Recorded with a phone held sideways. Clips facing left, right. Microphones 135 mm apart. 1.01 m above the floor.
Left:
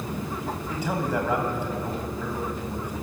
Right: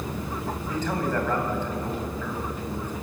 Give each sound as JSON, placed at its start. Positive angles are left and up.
{"t": 0.7, "sound": "a man speaking", "side_deg": 10, "distance_m": 5.0}